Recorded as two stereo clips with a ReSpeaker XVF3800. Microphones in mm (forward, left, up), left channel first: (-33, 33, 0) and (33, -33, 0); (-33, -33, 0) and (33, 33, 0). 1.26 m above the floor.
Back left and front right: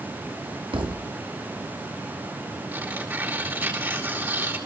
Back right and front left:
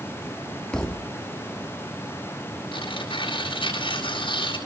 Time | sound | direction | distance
0.7 | a thud | 55° right | 1.3 m
2.7 | tearing paper | 110° right | 7.5 m